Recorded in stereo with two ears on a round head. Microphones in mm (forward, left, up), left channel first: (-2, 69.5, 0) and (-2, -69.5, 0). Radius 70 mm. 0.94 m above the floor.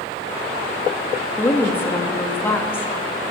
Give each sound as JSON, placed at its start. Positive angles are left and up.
{"t": 1.4, "sound": "a woman speaking", "side_deg": 15, "distance_m": 1.4}